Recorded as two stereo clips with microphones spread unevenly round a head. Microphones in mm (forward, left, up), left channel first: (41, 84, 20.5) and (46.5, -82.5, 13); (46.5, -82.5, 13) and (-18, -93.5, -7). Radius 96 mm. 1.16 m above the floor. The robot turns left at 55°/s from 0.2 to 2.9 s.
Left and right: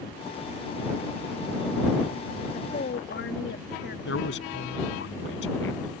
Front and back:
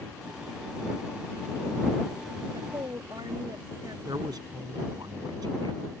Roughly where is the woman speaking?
Behind left.